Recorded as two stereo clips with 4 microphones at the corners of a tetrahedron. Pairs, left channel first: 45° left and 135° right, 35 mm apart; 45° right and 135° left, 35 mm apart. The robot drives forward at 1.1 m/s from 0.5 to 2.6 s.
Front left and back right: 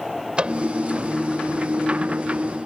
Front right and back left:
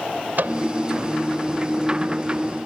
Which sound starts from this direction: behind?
A microwave, at 0.4 s.